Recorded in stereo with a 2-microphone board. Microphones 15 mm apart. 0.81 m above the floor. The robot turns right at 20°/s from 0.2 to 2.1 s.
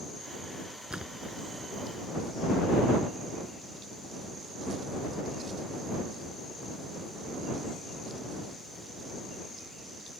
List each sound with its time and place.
0.9 s a splash: 70° right (ahead or behind); by 1.4 s 60° right (ahead or behind)